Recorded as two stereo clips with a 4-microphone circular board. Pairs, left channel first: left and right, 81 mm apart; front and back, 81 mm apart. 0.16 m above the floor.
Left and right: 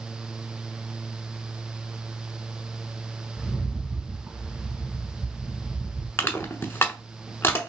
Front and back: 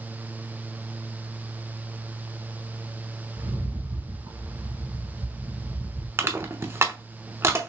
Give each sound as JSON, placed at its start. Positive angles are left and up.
{"t": 3.4, "sound": "a rattle", "azimuth_deg": -175, "distance_m": 3.5}
{"t": 6.2, "sound": "crushing", "azimuth_deg": 140, "distance_m": 1.0}